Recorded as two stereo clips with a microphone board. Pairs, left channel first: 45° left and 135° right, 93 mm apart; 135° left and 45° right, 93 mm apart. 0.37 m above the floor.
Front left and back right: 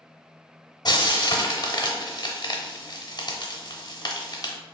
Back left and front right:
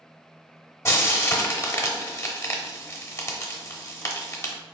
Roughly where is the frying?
Left.